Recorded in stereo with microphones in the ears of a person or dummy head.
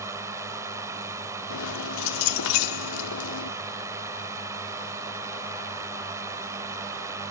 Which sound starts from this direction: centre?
A drone, at 0.0 s.